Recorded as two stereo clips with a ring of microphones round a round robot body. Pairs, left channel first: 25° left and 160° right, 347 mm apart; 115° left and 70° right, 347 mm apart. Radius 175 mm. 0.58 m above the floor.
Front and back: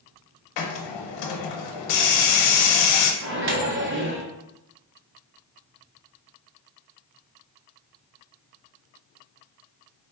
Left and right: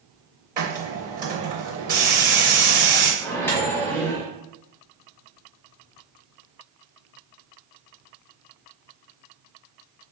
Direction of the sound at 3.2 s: 170° right.